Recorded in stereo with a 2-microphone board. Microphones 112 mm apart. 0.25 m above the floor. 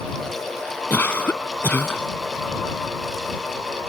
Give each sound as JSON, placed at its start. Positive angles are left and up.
{"t": 0.9, "sound": "a cough", "side_deg": 20}